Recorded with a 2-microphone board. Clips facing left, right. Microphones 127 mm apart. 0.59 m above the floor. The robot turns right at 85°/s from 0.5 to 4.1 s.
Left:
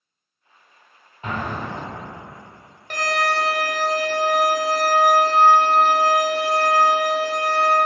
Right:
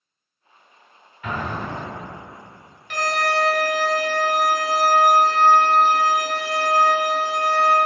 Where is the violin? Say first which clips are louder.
Even; 70° left, 0.8 m; by 7.8 s 170° left, 0.8 m.